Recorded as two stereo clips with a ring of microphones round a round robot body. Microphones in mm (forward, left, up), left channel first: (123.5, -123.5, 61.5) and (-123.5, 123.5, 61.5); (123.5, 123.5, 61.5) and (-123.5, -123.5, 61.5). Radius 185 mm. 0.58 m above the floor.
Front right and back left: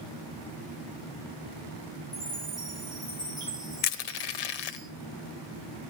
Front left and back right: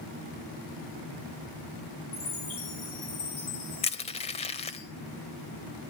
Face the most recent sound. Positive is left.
turn(degrees=-30)